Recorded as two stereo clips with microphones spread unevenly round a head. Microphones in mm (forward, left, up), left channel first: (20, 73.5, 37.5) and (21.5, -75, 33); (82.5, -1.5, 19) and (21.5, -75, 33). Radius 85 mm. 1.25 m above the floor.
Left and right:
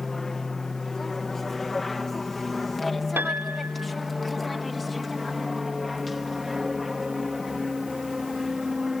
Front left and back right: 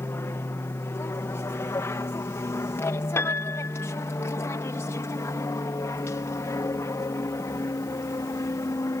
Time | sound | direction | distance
0.0 | an aircraft | 5° left | ?
3.2 | a piano | 15° right | ?